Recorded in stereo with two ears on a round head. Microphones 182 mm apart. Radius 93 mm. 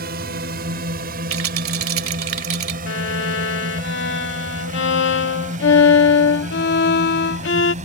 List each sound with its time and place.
0.0 s a drone: 45° right (ahead or behind); by 7.8 s 35° right (ahead or behind)
1.3 s a rattle: 70° right (ahead or behind)
2.9 s a violin: 60° left (ahead or behind)